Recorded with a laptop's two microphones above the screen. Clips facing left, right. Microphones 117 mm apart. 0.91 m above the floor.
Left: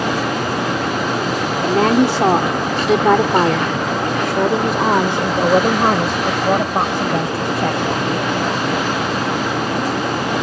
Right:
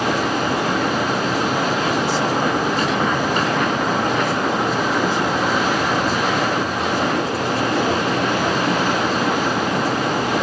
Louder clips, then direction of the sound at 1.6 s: Left 6 dB; 70° left (ahead or behind).